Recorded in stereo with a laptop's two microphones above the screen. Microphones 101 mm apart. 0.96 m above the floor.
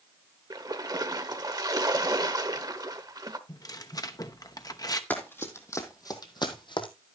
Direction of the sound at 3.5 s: 40° left (ahead or behind).